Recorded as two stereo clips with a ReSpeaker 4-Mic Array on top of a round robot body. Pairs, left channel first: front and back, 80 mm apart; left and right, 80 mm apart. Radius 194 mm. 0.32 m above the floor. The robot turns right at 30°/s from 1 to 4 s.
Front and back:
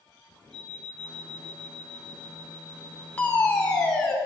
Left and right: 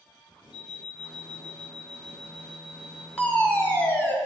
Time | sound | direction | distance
0.5 | an alarm clock | 85° left | 3 m
3.2 | a fire alarm | 40° left | 2.0 m